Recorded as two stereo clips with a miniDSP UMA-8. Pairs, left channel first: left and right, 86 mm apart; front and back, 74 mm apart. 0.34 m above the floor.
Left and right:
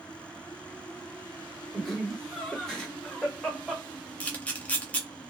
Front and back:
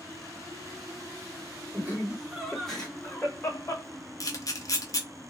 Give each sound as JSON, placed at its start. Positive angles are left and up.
{"t": 1.7, "sound": "laughter", "azimuth_deg": 175, "distance_m": 1.0}
{"t": 4.2, "sound": "a camera shutter", "azimuth_deg": 20, "distance_m": 0.6}